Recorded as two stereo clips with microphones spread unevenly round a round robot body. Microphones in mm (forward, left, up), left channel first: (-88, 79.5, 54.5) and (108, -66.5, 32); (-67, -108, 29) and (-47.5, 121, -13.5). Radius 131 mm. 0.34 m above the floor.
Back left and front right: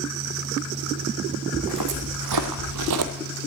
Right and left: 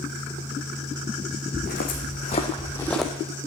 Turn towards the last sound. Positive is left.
turn(degrees=-5)